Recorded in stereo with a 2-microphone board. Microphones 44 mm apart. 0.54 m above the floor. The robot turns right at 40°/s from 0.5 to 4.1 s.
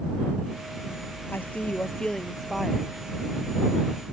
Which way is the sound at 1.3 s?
130° left.